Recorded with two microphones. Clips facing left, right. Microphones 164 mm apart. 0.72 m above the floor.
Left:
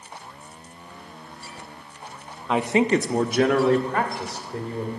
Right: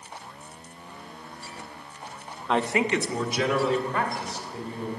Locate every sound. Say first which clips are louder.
2.5 s a man speaking: left 4 dB; centre (ahead or behind), 0.5 m; by 4.9 s 70° left (ahead or behind), 2.5 m